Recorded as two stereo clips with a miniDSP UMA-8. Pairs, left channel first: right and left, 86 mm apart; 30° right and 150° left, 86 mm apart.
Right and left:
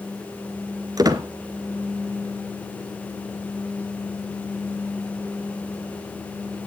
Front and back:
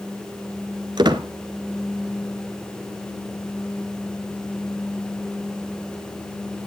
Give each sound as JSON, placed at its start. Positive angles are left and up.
{"t": 1.0, "sound": "a squeak", "azimuth_deg": 130, "distance_m": 1.2}